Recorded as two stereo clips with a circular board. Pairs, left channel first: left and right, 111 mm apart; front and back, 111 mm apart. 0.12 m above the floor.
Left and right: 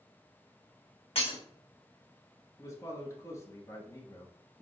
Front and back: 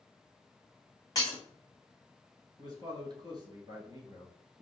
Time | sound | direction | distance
1.1 | breaking glass | 60° left | 1.8 m
2.6 | a man speaking | 145° left | 1.8 m